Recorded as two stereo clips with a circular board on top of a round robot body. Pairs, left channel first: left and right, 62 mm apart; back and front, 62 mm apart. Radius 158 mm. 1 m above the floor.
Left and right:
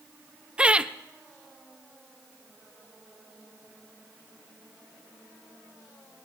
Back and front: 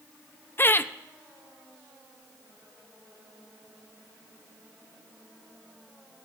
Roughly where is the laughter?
Behind right.